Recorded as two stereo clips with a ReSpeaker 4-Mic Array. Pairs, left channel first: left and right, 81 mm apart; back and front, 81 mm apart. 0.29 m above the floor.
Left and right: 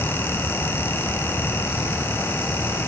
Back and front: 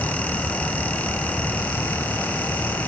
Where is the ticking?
No ticking in this recording.